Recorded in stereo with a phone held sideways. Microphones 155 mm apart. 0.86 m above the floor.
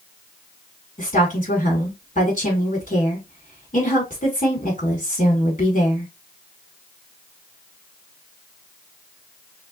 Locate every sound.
1.0 s a woman speaking: 55° left (ahead or behind), 2.5 m